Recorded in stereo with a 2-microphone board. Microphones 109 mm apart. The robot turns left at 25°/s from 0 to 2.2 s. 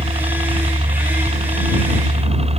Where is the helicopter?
55° right (ahead or behind); by 2.6 s 65° right (ahead or behind).